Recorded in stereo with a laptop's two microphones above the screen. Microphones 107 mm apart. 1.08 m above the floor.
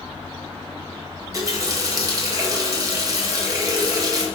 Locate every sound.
1.2 s a running tap: 35° right (ahead or behind), 1.7 m